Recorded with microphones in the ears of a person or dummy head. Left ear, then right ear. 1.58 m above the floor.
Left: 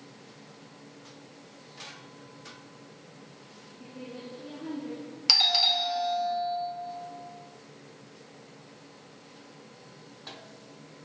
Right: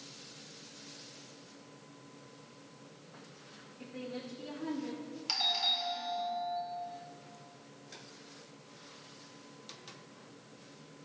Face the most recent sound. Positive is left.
turn(degrees=30)  # may be behind; listen again after turning